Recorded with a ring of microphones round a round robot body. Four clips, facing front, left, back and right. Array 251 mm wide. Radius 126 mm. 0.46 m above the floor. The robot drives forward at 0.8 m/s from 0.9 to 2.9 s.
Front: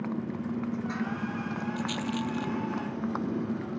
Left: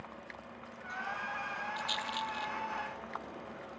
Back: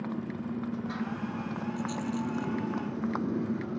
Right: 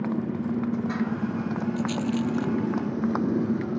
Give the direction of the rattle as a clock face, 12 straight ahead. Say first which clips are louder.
Right 11 dB, even; 12 o'clock.